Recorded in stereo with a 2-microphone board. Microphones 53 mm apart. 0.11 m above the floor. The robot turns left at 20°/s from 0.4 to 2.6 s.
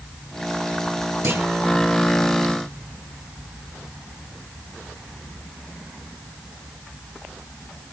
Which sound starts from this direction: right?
A clunk, at 1.2 s.